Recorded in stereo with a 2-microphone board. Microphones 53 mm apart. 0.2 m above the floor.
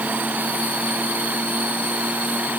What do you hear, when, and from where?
Only background noise.